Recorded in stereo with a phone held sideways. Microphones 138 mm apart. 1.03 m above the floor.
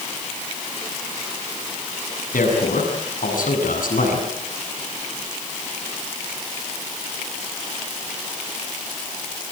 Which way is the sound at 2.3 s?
90° left.